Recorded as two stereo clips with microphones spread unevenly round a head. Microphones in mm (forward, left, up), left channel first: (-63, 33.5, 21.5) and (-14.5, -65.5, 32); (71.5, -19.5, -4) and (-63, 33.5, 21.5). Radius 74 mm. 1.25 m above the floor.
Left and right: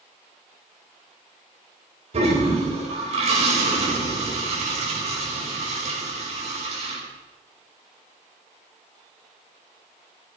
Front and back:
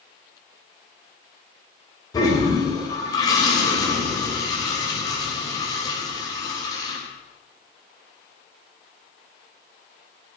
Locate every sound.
2.1 s a toilet flushing: 90° right, 4.5 m